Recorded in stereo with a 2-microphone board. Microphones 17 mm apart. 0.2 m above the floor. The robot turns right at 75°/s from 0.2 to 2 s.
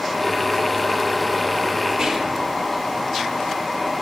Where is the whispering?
70° right (ahead or behind), 4.5 m.